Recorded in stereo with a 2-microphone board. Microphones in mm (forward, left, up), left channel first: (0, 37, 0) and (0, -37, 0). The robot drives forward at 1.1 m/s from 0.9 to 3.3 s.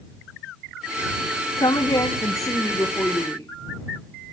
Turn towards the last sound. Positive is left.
turn(degrees=25)  # may be behind; listen again after turning